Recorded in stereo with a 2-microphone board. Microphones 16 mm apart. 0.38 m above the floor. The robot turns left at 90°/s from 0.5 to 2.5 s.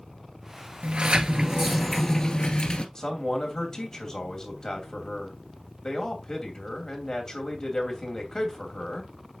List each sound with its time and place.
0.8 s a sliding door: 90° right, 1.0 m; by 2.9 s 120° left, 1.0 m
3.0 s a man speaking: 30° left (ahead or behind), 2.5 m